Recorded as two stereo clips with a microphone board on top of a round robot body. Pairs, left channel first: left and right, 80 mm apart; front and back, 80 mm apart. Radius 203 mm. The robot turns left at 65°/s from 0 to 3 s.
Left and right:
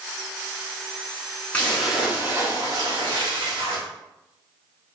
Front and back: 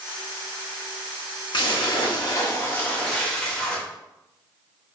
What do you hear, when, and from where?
1.5 s a splash: 20° left, 1.4 m; by 3.8 s 75° right, 1.4 m